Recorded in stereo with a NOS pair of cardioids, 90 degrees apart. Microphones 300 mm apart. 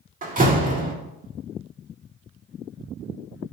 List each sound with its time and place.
0.2 s a door slam: 25° right, 1.9 m